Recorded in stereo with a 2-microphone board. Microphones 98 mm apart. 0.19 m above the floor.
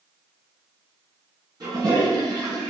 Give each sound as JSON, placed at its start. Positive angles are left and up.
{"t": 1.6, "sound": "a toilet flushing", "side_deg": -40, "distance_m": 1.7}